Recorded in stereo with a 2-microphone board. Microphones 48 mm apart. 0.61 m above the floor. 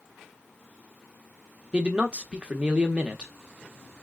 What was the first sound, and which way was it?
A man speaking, 25° right (ahead or behind).